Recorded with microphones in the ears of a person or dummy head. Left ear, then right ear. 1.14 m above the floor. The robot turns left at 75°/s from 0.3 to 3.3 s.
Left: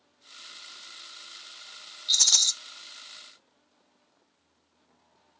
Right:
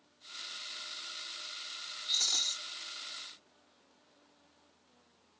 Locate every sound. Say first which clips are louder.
2.1 s a rattle: left 9 dB; 100° left, 0.7 m; by 2.5 s 70° left, 0.7 m